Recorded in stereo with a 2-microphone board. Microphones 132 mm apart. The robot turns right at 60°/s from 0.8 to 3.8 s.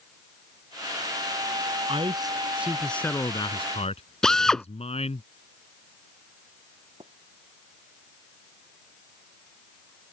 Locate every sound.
1.9 s a man speaking: 55° right; by 5.2 s 60° left
4.2 s a drill: 5° left (ahead or behind)
7.0 s tapping: 45° right (ahead or behind)